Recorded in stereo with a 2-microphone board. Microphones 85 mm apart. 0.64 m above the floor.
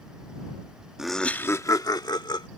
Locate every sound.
1.0 s laughter: 5° right (ahead or behind); by 2.5 s 60° left (ahead or behind)